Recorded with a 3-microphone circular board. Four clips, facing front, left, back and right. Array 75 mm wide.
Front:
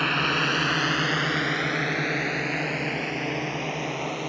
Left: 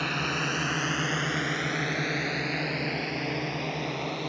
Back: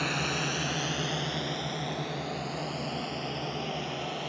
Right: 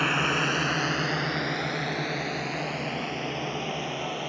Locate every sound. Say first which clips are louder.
0.0 s a drone: right 4 dB, front 7 dB; 40° right; by 4.3 s 30° left